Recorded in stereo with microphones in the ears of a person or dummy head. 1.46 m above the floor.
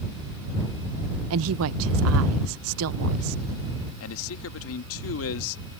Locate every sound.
1.3 s a woman speaking: 80° right
4.0 s a man speaking: 80° left